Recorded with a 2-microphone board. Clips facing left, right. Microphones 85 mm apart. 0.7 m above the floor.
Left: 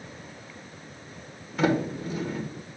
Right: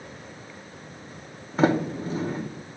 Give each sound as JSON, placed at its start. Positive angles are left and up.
{"t": 1.6, "sound": "a sliding door", "side_deg": -35, "distance_m": 0.9}